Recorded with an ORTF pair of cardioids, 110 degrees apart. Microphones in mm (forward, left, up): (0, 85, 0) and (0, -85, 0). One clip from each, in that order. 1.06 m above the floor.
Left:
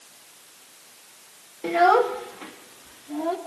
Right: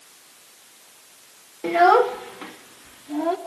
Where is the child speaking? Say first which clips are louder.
Right 2 dB; 10° right, 0.8 m; by 3.4 s 20° right, 2 m.